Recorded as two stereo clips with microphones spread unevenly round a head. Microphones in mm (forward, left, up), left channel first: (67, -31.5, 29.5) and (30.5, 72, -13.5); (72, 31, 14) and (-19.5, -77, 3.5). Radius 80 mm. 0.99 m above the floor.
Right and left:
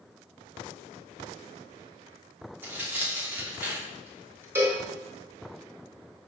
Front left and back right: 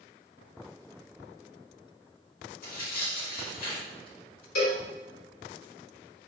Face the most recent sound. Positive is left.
turn(degrees=45)